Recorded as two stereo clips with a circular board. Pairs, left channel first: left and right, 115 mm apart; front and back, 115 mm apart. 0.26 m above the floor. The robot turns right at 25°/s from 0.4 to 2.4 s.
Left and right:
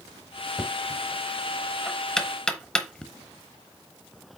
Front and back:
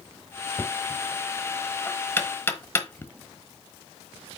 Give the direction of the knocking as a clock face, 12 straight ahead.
1 o'clock.